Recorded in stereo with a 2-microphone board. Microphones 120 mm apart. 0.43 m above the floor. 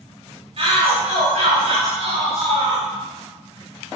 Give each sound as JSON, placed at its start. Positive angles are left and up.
{"t": 0.6, "sound": "a shout", "side_deg": -55, "distance_m": 3.5}